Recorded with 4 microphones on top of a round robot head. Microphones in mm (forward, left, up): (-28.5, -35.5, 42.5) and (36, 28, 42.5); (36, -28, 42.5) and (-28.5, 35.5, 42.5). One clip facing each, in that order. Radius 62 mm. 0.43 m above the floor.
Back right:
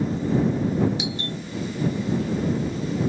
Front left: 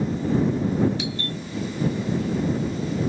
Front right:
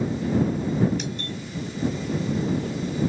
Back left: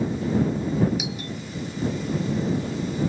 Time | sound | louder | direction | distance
1.0 | a doorbell | even, even | 155° right | ?